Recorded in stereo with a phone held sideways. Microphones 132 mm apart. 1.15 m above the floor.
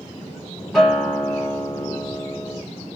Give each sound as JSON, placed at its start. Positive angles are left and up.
{"t": 0.7, "sound": "a guitar", "side_deg": 5, "distance_m": 1.2}